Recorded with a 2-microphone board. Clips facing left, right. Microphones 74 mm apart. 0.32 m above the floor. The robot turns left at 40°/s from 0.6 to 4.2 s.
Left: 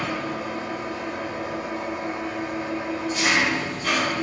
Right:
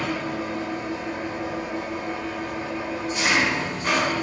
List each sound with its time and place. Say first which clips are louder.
0.0 s an engine running: right 1 dB; 95° left, 2 m; by 4.2 s 45° right, 2 m